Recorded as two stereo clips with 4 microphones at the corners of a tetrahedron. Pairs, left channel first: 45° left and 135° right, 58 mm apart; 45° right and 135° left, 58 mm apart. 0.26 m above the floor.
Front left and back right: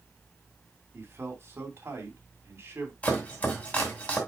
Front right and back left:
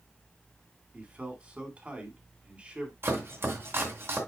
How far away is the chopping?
About 2.5 m.